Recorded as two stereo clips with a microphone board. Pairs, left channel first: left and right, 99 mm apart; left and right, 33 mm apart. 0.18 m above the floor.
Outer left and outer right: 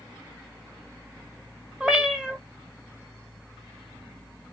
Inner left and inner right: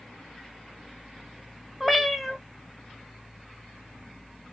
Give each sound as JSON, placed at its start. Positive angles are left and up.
{"t": 1.8, "sound": "a cat meowing", "side_deg": -10, "distance_m": 1.0}